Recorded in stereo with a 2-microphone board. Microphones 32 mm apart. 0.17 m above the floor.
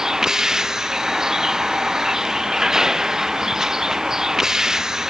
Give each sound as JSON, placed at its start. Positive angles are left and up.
{"t": 0.0, "sound": "a vehicle", "side_deg": -20}